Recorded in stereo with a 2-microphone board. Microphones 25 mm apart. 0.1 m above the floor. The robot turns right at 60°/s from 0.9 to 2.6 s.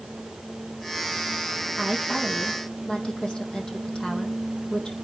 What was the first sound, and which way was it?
A woman speaking, 10° right.